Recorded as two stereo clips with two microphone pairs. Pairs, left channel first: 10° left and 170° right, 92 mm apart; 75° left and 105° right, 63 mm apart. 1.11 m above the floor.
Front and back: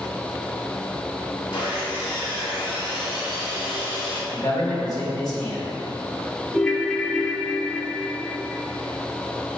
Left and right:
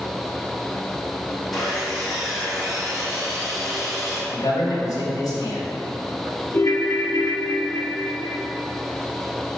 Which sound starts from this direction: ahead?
Sawing, at 1.5 s.